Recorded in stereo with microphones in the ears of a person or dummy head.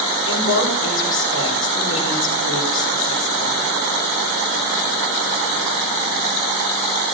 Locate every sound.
0.3 s a woman speaking: 75° left (ahead or behind), 6 m